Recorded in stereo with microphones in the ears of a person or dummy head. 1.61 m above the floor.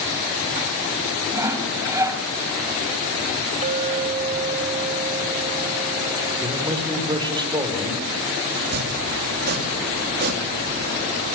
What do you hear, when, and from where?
1.3 s sawing: 15° right (ahead or behind), 2 m
3.6 s a clink: 35° right (ahead or behind), 1.6 m
6.4 s a man speaking: 20° right (ahead or behind), 5.5 m
8.6 s chopping: 50° right (ahead or behind), 3 m